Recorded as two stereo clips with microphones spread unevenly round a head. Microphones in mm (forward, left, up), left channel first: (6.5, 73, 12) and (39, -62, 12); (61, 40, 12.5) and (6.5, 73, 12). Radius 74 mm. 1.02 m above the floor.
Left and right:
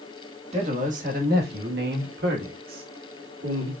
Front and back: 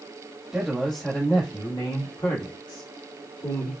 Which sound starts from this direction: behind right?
A man speaking, at 0.5 s.